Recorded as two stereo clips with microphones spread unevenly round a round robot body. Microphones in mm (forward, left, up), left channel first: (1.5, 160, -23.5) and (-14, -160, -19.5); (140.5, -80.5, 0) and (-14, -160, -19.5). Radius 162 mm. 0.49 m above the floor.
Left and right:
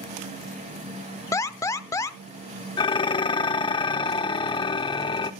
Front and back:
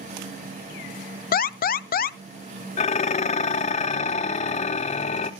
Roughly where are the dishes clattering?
Ahead left.